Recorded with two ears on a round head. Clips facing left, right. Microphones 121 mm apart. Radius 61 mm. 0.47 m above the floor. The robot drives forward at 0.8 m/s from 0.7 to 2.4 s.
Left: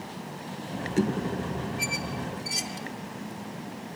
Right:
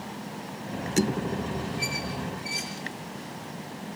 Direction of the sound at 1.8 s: 75° left (ahead or behind).